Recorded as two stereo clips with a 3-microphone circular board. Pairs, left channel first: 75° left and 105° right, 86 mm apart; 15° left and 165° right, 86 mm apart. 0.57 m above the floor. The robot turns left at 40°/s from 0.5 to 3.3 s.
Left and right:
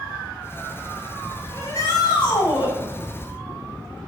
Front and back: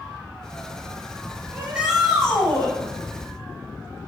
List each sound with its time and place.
1.5 s a shout: 125° left, 3.5 m; by 2.7 s 80° left, 3.5 m